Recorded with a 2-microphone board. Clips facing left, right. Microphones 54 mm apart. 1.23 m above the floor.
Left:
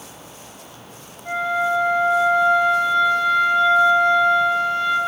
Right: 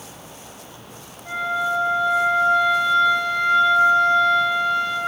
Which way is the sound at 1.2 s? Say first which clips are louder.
Left 2 dB; 25° left (ahead or behind).